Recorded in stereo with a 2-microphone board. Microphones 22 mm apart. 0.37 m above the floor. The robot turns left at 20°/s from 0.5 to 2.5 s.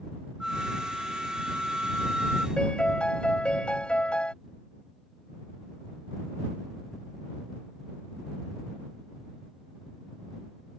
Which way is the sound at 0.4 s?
10° right.